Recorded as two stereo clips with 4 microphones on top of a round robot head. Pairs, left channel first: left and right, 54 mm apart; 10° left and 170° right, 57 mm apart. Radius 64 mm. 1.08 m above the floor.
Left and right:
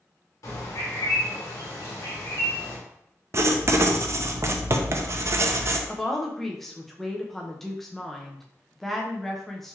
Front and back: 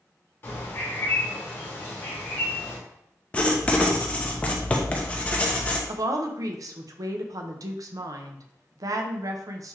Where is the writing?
55° right, 0.6 m.